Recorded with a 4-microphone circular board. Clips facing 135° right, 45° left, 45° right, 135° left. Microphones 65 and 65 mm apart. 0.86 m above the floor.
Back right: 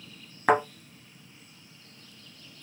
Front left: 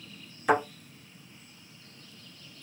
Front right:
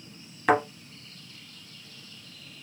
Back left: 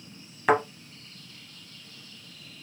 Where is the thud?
145° right, 1.1 m.